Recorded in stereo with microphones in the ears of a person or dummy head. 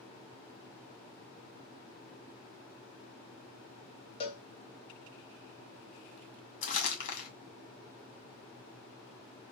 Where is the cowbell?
35° left (ahead or behind), 0.9 m.